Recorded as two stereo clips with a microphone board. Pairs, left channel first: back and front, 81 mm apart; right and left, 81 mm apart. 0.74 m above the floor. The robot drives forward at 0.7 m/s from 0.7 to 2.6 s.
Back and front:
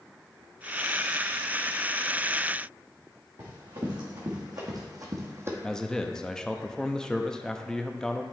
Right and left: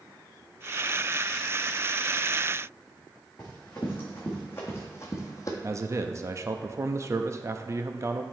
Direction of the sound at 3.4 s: 20° right.